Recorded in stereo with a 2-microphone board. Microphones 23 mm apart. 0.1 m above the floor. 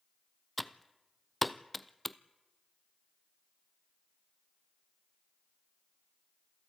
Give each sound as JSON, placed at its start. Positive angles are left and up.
{"t": 0.6, "sound": "typing on a keyboard", "side_deg": 0, "distance_m": 0.6}